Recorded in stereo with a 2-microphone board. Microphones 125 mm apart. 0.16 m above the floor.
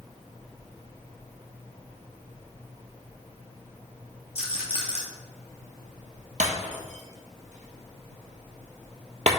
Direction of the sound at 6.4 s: 75° right (ahead or behind).